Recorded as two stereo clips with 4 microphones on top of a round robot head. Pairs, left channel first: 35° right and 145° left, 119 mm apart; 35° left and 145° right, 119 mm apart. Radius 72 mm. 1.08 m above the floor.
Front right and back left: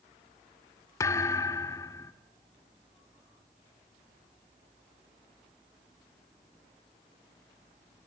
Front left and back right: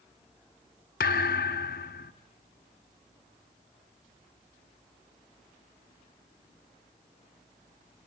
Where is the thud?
30° left, 0.9 m.